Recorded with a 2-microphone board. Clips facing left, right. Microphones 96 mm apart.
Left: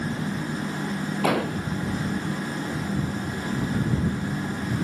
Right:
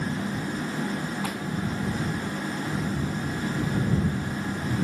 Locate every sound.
1.2 s an explosion: 85° left